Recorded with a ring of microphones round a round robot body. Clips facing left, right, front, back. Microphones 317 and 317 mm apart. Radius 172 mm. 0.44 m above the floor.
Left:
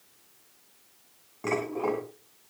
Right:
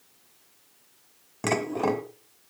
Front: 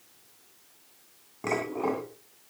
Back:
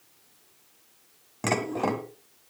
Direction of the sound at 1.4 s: 135° right.